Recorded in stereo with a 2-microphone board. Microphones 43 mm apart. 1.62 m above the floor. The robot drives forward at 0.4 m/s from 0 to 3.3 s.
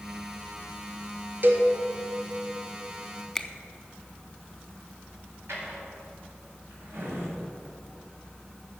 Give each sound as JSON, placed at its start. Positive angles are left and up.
{"t": 1.4, "sound": "a cowbell", "side_deg": -50, "distance_m": 1.4}
{"t": 3.4, "sound": "a finger snap", "side_deg": 10, "distance_m": 0.7}
{"t": 5.5, "sound": "a drawer", "side_deg": -65, "distance_m": 4.0}